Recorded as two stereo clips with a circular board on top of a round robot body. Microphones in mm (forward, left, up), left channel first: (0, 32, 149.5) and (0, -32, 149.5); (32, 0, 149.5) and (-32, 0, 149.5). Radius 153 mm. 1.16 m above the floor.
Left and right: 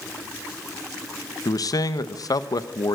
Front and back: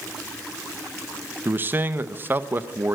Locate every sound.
1.4 s a man speaking: 120° left, 1.2 m